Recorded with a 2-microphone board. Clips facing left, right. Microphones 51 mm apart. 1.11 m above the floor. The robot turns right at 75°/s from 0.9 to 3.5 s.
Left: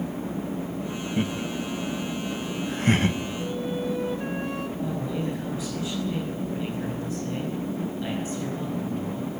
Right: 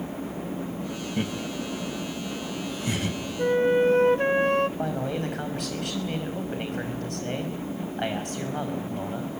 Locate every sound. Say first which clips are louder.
1.2 s laughter: left 2 dB; 5° right (ahead or behind), 1.3 m; by 3.2 s 30° left (ahead or behind), 1.3 m
3.4 s a flute: right 13 dB; 55° right (ahead or behind), 0.5 m; by 4.7 s 60° right (ahead or behind), 0.5 m
4.8 s a man speaking: right 1 dB; 65° right (ahead or behind), 5.5 m